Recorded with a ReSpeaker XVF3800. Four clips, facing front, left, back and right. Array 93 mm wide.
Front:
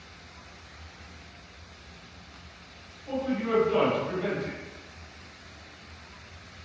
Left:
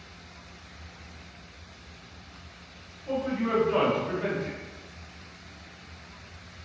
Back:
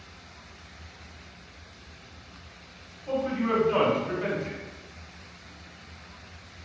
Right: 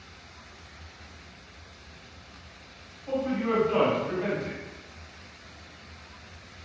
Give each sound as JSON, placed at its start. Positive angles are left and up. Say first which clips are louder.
{"t": 3.1, "sound": "a man speaking", "louder": "even, back 1 dB", "azimuth_deg": 180, "distance_m": 1.6}